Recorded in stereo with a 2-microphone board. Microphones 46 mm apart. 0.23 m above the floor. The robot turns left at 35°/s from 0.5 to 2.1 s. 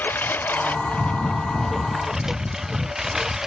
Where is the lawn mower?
45° left; by 3.5 s 10° right.